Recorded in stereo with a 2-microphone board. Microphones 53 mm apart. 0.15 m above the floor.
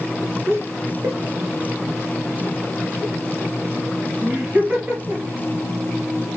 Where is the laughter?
50° right (ahead or behind), 2 m; by 5.2 s 25° right (ahead or behind), 3.5 m.